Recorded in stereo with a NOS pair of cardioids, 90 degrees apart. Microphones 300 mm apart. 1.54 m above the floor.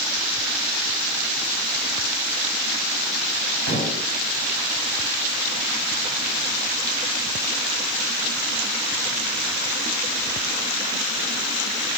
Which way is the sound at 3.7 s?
60° right.